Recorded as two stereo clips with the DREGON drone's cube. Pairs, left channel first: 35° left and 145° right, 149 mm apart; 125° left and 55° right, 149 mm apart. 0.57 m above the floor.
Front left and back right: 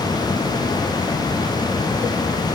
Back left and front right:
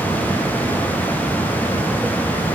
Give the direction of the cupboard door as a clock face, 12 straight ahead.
I don't hear a cupboard door.